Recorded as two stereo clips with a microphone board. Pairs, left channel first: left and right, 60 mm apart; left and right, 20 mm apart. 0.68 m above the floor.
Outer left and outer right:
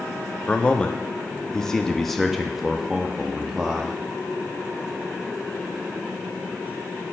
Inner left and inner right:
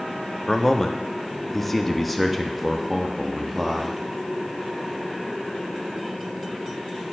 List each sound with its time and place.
0.5 s a man speaking: 20° left (ahead or behind), 1.1 m; by 4.0 s 15° right (ahead or behind), 1.3 m